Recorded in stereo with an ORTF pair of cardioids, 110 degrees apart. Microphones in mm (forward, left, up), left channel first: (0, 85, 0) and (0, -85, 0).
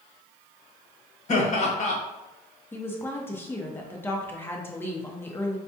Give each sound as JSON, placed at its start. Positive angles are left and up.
{"t": 1.3, "sound": "laughter", "azimuth_deg": 45, "distance_m": 1.3}
{"t": 2.7, "sound": "a woman speaking", "azimuth_deg": 10, "distance_m": 0.8}